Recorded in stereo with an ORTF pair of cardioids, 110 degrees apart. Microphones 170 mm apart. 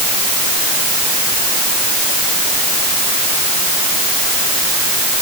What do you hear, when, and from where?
Only background noise.